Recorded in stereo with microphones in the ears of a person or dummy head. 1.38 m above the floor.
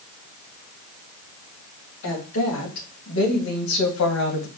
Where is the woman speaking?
80° left, 2 m; by 4.5 s 70° left (ahead or behind), 1.0 m.